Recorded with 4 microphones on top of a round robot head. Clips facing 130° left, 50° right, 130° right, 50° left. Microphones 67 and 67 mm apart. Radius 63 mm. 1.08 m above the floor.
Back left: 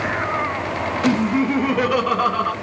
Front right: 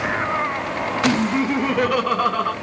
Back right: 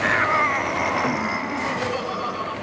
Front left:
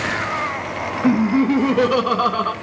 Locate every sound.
1.0 s laughter: 40° left, 1.2 m